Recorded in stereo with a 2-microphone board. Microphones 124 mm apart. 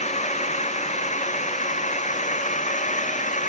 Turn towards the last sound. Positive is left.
turn(degrees=80)